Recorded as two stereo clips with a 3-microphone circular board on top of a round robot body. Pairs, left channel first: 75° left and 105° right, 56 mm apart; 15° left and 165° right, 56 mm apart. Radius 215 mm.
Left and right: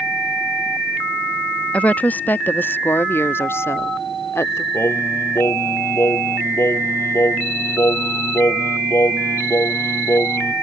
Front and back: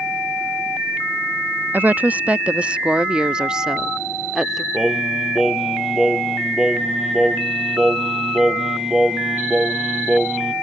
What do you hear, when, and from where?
1.7 s a woman speaking: 140° left; by 4.6 s 110° left
4.7 s singing: 115° left